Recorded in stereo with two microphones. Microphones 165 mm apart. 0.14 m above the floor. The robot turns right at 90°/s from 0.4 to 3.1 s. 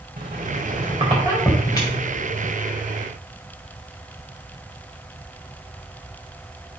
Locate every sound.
0.2 s a squeak: 80° right, 4.5 m; by 2.5 s 85° left, 4.5 m